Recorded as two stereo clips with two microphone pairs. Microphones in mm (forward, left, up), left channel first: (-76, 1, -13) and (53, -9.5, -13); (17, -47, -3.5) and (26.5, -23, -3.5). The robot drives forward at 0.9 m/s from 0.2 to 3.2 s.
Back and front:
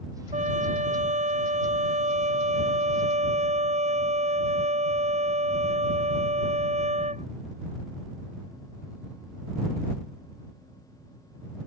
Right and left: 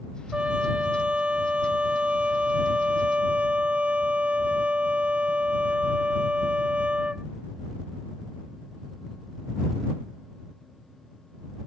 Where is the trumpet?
25° left; by 7.2 s 30° left.